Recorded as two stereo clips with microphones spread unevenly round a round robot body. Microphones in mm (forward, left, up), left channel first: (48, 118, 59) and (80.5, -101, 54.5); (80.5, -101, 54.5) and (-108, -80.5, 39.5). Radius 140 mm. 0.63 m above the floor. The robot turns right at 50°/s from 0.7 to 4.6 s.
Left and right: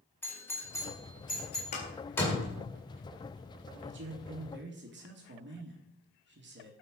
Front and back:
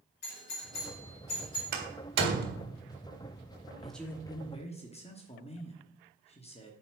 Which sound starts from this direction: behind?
A door slam, at 1.7 s.